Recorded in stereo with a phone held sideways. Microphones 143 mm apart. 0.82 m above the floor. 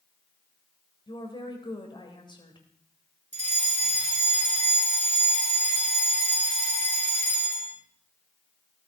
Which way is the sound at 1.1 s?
35° left (ahead or behind).